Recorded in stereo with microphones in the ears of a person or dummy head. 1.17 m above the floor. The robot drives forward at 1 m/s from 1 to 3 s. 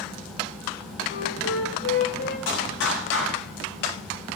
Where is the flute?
65° left (ahead or behind), 6 m; by 2.4 s 75° left (ahead or behind), 5.5 m.